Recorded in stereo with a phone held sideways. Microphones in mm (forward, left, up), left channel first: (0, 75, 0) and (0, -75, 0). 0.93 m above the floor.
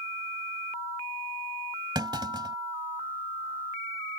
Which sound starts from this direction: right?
A clunk, at 1.9 s.